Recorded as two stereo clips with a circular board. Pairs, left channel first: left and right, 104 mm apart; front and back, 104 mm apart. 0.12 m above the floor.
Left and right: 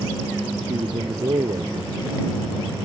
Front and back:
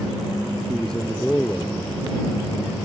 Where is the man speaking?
85° right; by 2.9 s 55° right.